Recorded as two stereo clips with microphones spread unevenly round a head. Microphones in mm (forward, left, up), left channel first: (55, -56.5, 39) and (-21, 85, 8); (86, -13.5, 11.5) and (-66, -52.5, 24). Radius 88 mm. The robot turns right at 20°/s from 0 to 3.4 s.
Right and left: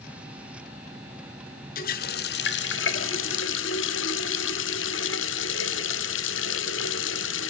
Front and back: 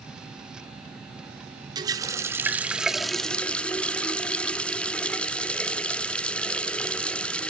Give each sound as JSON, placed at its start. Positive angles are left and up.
{"t": 1.8, "sound": "a running tap", "azimuth_deg": -105, "distance_m": 1.0}